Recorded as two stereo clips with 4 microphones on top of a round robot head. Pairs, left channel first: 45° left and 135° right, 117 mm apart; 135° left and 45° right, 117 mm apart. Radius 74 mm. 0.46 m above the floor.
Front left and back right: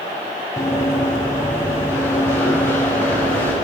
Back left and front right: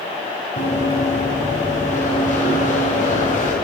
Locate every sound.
0.6 s running footsteps: 110° left, 8.5 m; by 3.5 s 120° left, 10 m